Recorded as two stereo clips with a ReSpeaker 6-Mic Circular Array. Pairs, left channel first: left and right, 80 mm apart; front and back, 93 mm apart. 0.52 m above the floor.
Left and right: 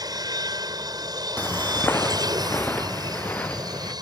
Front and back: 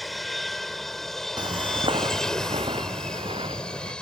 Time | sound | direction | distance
0.0 | an aircraft | 90° right | ?
1.4 | footsteps | 155° left | ?